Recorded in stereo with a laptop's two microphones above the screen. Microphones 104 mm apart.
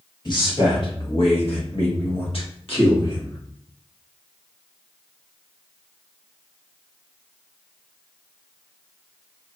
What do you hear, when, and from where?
0.2 s a man speaking: 45° left (ahead or behind), 1.3 m; by 3.4 s 50° left (ahead or behind), 1.8 m